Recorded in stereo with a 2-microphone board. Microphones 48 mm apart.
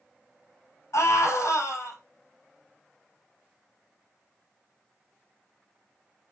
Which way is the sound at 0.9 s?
70° left (ahead or behind).